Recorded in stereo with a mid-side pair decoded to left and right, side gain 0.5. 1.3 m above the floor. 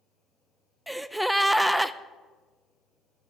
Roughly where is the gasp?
Ahead.